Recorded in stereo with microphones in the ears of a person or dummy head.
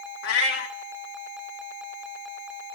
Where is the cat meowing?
60° left (ahead or behind), 1.4 m.